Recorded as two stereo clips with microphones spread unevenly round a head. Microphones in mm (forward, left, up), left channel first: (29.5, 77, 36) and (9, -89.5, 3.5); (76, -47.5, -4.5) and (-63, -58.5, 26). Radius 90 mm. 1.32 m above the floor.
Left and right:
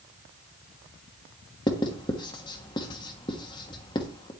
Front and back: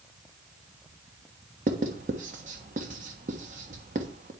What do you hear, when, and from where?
1.7 s writing: 145° left, 1.2 m